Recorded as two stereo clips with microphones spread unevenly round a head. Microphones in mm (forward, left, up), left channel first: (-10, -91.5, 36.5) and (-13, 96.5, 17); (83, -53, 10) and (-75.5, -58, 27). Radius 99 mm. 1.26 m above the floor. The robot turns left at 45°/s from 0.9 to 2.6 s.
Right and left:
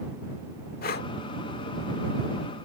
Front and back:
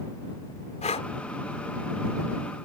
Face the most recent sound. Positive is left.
turn(degrees=-125)